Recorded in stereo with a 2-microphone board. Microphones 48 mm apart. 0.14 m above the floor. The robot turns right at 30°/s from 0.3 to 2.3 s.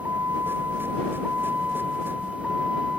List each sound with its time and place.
0.0 s a vehicle: 60° right (ahead or behind); by 3.0 s 15° right (ahead or behind)